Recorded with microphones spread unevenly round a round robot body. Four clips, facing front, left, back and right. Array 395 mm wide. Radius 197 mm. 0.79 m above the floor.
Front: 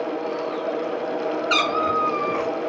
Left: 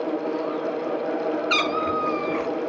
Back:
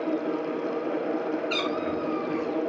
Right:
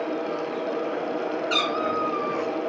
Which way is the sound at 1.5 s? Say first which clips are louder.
Left 1 dB, front 6 dB; 40° left.